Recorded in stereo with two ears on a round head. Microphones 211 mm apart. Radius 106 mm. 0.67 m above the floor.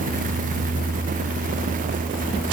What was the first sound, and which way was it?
Only background noise.